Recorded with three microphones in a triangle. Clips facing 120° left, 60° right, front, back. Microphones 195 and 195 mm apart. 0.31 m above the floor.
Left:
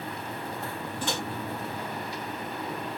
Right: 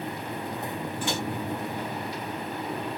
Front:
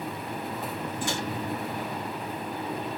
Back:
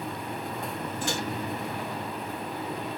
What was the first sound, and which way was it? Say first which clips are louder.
A microwave: right 1 dB, even; 25° left.